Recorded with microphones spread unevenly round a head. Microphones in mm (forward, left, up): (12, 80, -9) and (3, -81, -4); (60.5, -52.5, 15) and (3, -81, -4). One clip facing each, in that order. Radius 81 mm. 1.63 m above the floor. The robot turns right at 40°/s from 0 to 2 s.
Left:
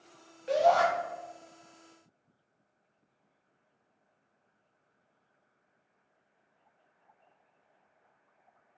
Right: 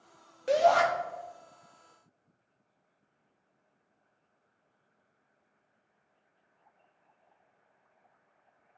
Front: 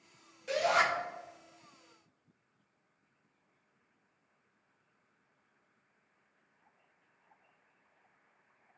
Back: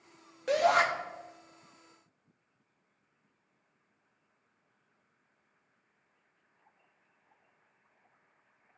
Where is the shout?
120° right, 0.6 m; by 0.8 s 105° right, 0.6 m.